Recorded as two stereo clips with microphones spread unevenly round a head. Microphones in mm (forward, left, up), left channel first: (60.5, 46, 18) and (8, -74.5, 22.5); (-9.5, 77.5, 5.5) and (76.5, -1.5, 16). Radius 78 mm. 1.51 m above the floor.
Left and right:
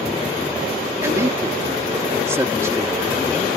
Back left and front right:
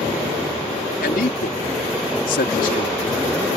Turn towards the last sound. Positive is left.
turn(degrees=175)